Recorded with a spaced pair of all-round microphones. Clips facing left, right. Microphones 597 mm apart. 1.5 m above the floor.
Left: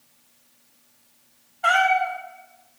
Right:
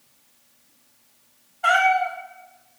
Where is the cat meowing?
Centre (ahead or behind), 0.8 m.